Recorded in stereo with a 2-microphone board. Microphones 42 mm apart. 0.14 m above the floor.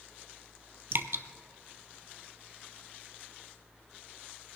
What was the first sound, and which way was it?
Dripping, 70° right (ahead or behind).